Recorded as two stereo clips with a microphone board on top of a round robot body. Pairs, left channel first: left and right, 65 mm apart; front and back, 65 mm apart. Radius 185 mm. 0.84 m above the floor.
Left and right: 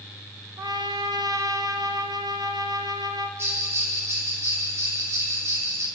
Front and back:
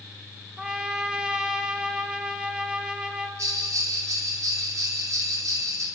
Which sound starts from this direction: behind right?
A bell, at 3.4 s.